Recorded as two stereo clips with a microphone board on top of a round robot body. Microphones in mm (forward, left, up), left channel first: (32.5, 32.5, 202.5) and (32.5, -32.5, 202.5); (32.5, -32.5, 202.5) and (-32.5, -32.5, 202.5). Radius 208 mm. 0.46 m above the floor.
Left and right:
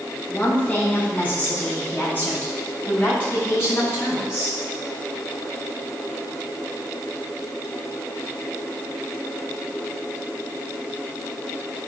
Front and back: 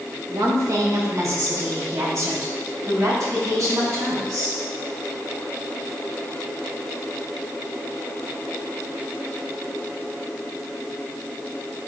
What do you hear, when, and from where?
0.3 s a woman speaking: 155° left, 1.8 m; by 4.6 s 145° left, 4.5 m